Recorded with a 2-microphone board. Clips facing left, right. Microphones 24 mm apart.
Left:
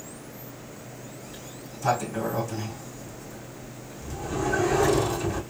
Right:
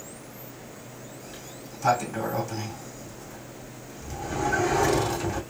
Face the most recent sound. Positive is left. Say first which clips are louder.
# even
turn(degrees=-25)  # may be behind; listen again after turning